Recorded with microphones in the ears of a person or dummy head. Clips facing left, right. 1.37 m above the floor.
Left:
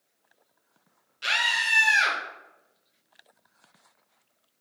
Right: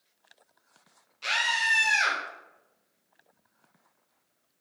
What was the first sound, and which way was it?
A scream, 10° left (ahead or behind).